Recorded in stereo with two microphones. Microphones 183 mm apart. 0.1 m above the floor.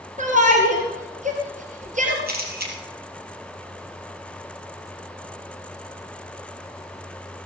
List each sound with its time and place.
0.2 s a shout: 45° right (ahead or behind), 2 m
2.3 s a camera shutter: 60° right (ahead or behind), 3.5 m